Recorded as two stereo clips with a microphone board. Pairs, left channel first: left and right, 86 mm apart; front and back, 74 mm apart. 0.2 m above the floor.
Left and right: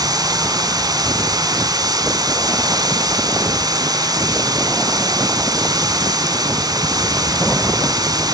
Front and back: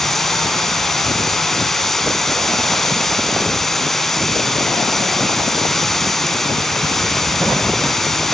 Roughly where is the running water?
Right.